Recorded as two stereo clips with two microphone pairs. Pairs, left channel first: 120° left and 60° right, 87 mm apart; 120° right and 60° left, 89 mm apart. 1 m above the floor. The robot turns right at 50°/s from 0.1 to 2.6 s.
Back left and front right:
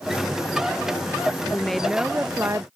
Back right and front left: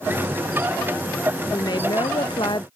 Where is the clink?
I don't hear a clink.